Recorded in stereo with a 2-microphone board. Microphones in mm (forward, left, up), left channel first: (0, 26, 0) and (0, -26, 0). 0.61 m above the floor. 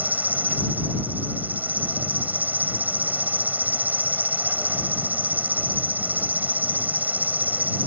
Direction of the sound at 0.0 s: 35° right (ahead or behind).